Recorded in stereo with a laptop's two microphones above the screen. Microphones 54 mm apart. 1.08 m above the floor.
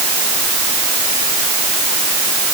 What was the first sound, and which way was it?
Only background noise.